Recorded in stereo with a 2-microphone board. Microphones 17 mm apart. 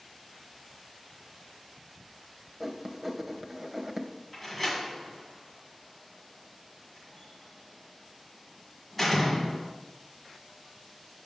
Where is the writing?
20° right (ahead or behind), 0.9 m.